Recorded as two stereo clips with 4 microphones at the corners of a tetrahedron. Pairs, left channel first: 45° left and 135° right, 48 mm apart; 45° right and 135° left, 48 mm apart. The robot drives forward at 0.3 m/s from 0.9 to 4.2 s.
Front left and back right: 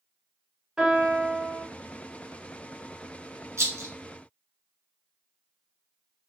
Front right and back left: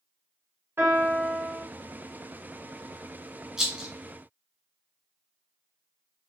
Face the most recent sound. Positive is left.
turn(degrees=-150)